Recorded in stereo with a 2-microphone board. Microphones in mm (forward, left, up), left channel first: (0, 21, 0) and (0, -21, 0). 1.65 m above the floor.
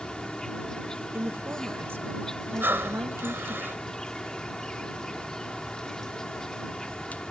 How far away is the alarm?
I don't hear an alarm.